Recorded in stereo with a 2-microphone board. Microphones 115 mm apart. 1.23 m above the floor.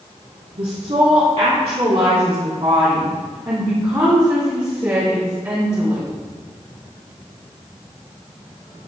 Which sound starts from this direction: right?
A woman speaking, at 0.6 s.